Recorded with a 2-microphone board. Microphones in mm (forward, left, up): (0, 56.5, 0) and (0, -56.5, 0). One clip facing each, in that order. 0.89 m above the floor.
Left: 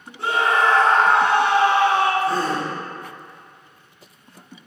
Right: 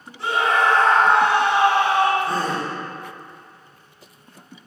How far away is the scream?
About 1.7 m.